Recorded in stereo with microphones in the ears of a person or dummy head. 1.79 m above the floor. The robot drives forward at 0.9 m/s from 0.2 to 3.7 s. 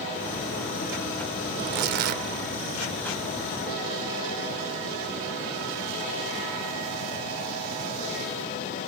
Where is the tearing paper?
45° right (ahead or behind); by 2.2 s 40° right (ahead or behind).